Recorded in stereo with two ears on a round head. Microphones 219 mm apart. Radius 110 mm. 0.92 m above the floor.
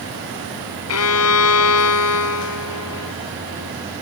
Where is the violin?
65° left (ahead or behind).